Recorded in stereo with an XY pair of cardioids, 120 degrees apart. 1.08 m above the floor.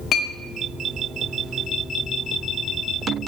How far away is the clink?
About 0.7 m.